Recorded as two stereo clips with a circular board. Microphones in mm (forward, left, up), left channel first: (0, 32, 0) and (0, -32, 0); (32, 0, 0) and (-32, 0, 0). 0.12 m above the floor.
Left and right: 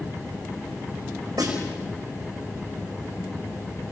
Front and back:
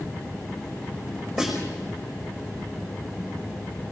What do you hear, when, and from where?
1.4 s a snare drum: 95° right, 5.5 m